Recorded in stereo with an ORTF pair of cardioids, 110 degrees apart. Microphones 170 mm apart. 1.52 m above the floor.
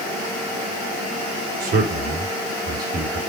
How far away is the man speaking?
About 4 m.